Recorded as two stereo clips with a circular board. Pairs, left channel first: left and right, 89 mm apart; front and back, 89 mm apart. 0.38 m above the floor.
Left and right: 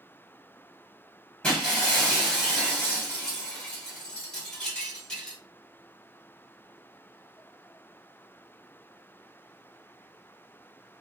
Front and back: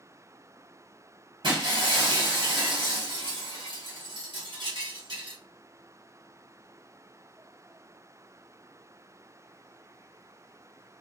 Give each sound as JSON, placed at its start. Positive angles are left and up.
{"t": 1.4, "sound": "breaking glass", "azimuth_deg": 170, "distance_m": 1.5}